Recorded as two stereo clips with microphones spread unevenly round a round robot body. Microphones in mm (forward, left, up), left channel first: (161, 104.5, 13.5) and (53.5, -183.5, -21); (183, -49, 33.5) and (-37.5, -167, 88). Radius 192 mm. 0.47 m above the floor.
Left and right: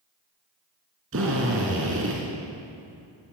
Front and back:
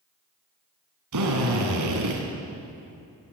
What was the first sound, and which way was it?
A drill, 170° right.